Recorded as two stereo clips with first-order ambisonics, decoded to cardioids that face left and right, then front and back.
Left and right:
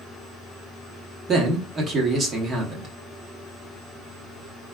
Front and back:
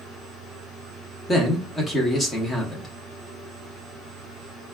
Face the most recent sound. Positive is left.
turn(degrees=-80)